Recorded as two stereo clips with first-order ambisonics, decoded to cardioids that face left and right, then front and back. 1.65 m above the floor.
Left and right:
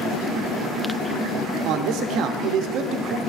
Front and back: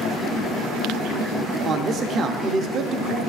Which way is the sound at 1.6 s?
125° right.